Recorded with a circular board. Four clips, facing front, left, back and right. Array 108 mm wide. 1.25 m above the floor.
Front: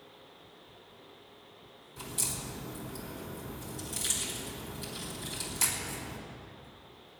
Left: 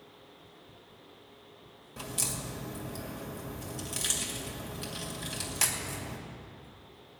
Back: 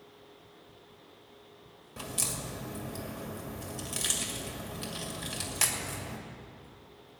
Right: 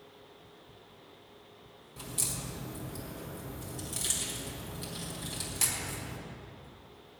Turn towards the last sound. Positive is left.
turn(degrees=155)